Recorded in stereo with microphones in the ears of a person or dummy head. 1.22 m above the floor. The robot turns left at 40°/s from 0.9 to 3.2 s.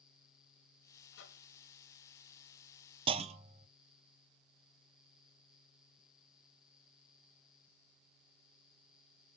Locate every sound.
1.1 s a microwave: 75° left (ahead or behind), 3.5 m; by 1.4 s 65° left (ahead or behind), 3.5 m
3.1 s a clunk: 30° right (ahead or behind), 0.7 m; by 3.7 s 35° right (ahead or behind), 0.7 m